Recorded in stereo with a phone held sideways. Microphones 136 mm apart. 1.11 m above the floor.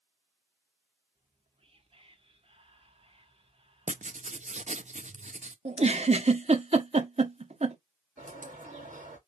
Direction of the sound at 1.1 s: 45° right (ahead or behind).